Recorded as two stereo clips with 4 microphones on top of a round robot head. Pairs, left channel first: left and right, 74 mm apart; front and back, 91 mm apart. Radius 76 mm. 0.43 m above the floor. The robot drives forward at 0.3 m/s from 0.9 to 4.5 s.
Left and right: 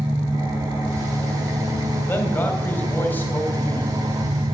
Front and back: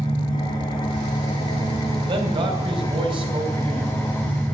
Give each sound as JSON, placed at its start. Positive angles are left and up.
{"t": 0.0, "sound": "an engine running", "azimuth_deg": -40, "distance_m": 2.0}
{"t": 2.1, "sound": "a man speaking", "azimuth_deg": 150, "distance_m": 2.5}